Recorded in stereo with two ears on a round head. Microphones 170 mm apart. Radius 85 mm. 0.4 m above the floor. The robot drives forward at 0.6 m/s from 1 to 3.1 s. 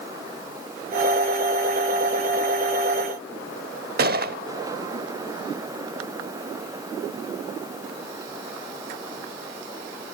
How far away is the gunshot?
About 0.7 m.